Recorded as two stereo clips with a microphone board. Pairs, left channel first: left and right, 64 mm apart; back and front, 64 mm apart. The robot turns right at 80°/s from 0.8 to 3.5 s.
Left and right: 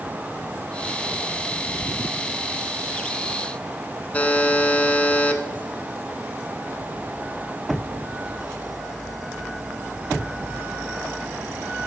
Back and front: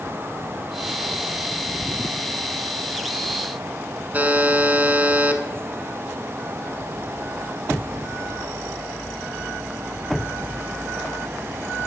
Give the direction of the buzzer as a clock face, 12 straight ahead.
11 o'clock.